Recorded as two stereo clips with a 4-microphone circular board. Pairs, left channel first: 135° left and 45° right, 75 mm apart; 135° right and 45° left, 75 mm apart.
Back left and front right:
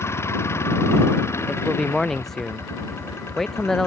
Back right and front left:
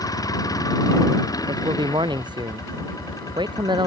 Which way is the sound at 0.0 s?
170° right.